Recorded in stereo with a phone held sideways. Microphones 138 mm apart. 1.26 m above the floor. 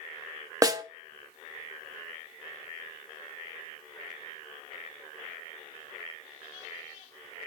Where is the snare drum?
25° right (ahead or behind), 0.9 m.